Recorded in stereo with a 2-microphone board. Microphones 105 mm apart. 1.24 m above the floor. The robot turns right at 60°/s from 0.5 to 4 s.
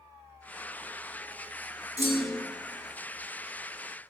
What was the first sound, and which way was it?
A clunk, 75° right (ahead or behind).